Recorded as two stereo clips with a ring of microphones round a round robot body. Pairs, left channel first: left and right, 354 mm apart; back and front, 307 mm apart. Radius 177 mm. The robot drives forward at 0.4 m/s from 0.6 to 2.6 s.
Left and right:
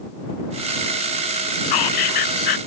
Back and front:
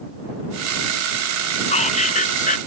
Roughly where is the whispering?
Left.